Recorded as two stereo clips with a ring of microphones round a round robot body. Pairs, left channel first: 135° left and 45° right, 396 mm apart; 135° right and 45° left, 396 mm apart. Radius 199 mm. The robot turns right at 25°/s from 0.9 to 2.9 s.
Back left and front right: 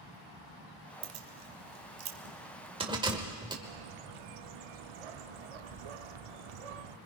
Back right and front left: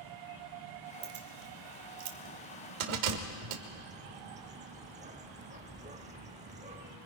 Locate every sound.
1.0 s keys jangling: 15° right, 1.7 m; by 3.5 s 35° left, 1.7 m
3.6 s a bird: 30° right, 0.8 m